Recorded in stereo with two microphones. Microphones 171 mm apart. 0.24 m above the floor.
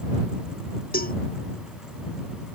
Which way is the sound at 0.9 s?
60° left (ahead or behind).